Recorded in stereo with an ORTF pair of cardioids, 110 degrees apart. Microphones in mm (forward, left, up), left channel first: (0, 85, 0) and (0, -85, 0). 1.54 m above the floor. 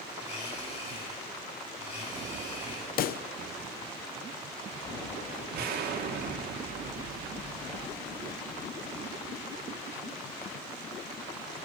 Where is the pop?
65° left, 0.7 m.